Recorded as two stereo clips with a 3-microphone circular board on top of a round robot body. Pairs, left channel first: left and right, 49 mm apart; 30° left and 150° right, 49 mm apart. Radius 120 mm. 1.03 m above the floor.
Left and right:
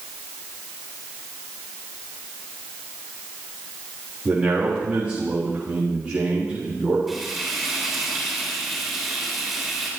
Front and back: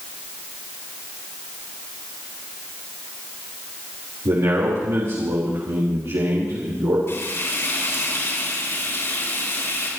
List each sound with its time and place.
4.2 s a man speaking: 160° right, 4 m
7.1 s frying: straight ahead, 7.5 m